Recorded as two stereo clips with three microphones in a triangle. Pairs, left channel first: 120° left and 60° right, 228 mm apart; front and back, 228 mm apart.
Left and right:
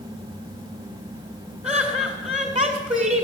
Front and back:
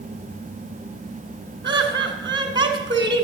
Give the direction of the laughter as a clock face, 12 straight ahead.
4 o'clock.